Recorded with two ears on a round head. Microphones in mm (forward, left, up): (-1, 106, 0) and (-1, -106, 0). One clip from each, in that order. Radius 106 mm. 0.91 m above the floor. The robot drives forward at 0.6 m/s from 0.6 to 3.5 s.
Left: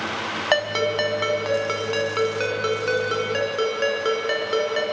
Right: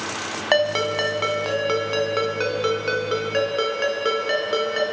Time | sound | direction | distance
0.5 | a ringtone | 5° left (ahead or behind) | 2.5 m